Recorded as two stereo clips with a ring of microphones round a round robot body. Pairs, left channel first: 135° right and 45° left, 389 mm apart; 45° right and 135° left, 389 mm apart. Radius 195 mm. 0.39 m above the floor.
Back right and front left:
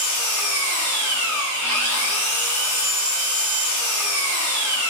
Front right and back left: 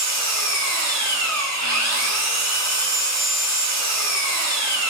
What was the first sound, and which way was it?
An engine running, straight behind.